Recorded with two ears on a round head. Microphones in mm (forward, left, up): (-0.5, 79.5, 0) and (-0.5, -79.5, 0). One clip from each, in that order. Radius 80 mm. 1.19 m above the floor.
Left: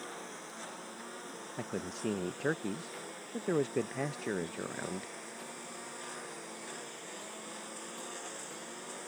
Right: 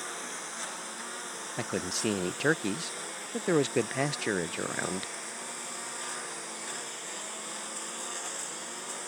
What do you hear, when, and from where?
0.0 s a lawn mower: 45° right (ahead or behind); by 9.1 s 30° right (ahead or behind)
1.6 s a man speaking: 80° right